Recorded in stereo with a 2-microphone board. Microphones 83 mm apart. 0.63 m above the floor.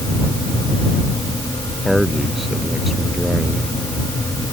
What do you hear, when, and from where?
1.9 s a man speaking: 5° right (ahead or behind)